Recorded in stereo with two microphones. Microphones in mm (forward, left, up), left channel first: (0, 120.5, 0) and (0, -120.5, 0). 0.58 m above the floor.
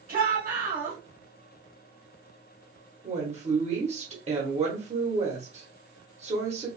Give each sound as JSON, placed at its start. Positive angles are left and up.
{"t": 0.1, "sound": "a shout", "side_deg": -35, "distance_m": 1.2}
{"t": 3.0, "sound": "a woman speaking", "side_deg": -25, "distance_m": 1.1}